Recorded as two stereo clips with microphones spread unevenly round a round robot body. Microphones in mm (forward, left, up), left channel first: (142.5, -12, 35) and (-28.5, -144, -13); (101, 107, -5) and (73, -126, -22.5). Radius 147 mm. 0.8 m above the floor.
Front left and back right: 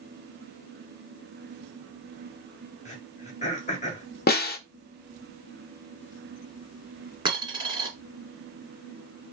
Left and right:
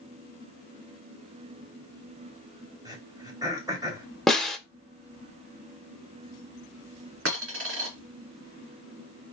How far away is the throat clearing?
About 1.5 m.